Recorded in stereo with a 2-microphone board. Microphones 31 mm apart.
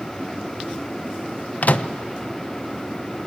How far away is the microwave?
About 0.8 m.